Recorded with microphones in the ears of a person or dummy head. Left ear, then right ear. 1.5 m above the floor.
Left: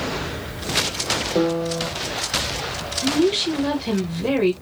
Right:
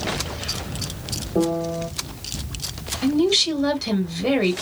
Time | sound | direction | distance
1.4 | a piano | 75° left (ahead or behind) | 1.2 m
3.0 | a woman speaking | 20° right (ahead or behind) | 1.8 m